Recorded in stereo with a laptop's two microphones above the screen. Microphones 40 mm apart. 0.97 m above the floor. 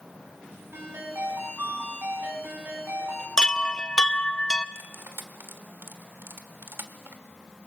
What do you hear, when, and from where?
0.7 s a ringtone: 65° right (ahead or behind), 6 m
3.4 s a chime: 15° left (ahead or behind), 0.5 m
4.8 s cutlery clinking: 60° right (ahead or behind), 1.4 m